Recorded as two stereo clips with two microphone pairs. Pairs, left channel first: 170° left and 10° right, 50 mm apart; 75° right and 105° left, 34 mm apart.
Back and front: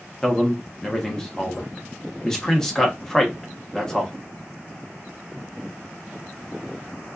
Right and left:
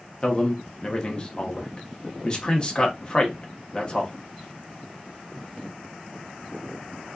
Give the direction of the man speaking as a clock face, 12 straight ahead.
4 o'clock.